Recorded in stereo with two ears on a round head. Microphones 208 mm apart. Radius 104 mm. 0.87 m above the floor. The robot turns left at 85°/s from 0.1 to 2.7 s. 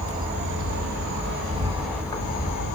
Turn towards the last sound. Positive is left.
turn(degrees=110)